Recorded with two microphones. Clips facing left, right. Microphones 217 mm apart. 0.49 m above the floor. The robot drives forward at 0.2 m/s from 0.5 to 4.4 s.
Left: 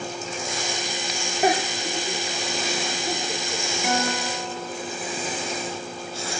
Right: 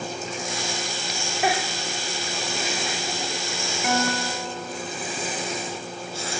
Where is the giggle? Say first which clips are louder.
Left 4 dB; 35° left (ahead or behind), 3 m; by 3.6 s 45° left (ahead or behind), 2.5 m.